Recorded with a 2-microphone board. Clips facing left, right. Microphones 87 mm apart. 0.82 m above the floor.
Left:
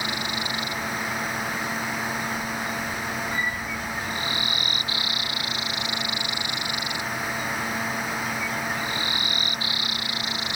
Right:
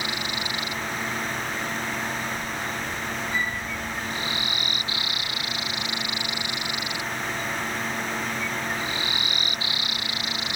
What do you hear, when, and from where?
3.3 s a flute: 35° left (ahead or behind), 4 m